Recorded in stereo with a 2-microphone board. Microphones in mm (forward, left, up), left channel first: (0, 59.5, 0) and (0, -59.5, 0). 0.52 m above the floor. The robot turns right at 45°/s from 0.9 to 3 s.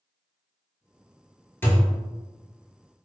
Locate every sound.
1.6 s a thud: 20° left (ahead or behind), 0.7 m; by 2.0 s 5° left (ahead or behind), 0.7 m